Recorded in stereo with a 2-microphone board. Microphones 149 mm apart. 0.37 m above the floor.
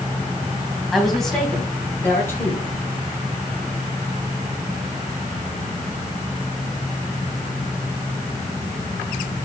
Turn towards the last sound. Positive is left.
turn(degrees=20)  # may be behind; listen again after turning